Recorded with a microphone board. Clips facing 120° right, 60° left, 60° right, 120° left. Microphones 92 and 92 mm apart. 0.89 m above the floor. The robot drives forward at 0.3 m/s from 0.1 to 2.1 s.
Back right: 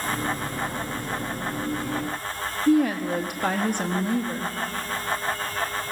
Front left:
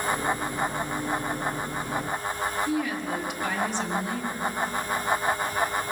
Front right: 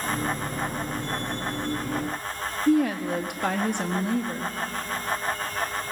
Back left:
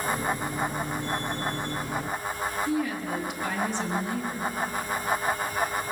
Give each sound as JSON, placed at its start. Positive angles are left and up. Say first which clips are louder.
{"t": 2.7, "sound": "a woman speaking", "louder": "back right 7 dB, front right 10 dB", "azimuth_deg": -85, "distance_m": 1.4}